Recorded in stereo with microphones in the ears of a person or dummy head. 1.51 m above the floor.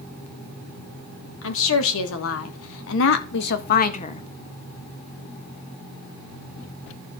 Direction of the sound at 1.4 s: 75° left (ahead or behind).